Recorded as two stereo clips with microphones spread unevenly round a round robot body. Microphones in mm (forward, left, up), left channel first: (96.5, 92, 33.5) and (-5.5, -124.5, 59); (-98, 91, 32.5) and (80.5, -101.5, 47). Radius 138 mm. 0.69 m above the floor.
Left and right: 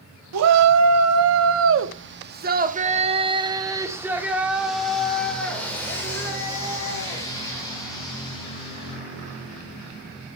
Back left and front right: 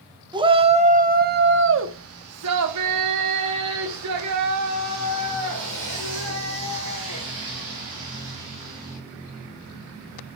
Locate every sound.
0.3 s a shout: 120° right, 1.3 m; by 9.0 s 5° right, 3.5 m